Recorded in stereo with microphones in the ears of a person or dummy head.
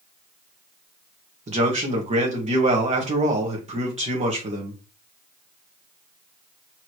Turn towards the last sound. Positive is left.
turn(degrees=-25)  # may be behind; listen again after turning